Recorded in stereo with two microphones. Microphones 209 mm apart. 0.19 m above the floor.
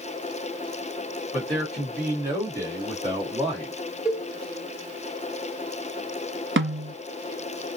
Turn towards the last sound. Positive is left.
turn(degrees=-75)  # may be behind; listen again after turning